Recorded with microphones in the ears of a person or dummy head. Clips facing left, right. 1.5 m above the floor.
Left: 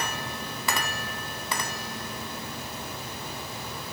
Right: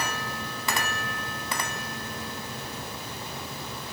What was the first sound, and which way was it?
Only background noise.